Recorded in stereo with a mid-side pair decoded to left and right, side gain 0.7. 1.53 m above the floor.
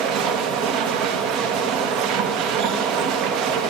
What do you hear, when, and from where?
0.0 s a machine running: 60° right, 1.6 m